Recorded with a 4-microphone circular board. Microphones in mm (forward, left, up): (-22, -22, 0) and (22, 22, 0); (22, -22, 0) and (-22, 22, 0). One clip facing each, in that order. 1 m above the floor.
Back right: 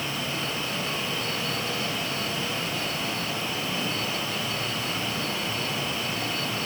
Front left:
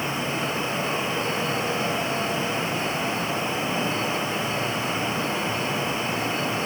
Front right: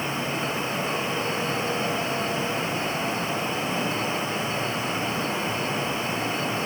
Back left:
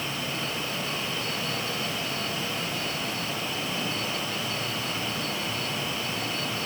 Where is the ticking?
I don't hear ticking.